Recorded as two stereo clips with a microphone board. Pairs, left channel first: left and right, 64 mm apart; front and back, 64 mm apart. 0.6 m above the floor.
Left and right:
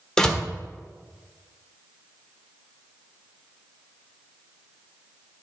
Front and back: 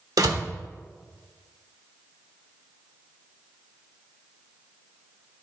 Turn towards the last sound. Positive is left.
turn(degrees=170)